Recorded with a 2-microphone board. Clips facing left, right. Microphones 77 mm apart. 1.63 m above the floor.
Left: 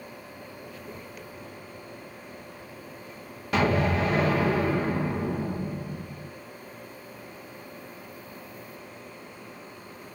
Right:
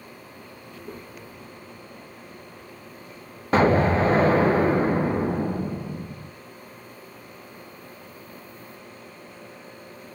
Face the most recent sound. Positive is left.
turn(degrees=-35)  # may be behind; listen again after turning